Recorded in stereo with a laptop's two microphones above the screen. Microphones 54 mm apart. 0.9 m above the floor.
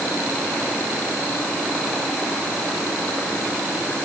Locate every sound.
Only background noise.